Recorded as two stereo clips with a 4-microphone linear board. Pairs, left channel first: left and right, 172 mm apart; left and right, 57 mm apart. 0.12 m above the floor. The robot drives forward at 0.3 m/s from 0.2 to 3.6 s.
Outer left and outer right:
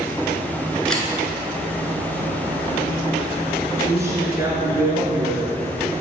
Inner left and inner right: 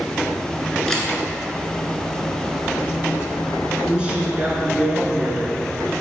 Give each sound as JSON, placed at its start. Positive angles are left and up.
{"t": 0.9, "sound": "a camera shutter", "side_deg": 5, "distance_m": 1.2}
{"t": 3.9, "sound": "a woman speaking", "side_deg": -20, "distance_m": 1.3}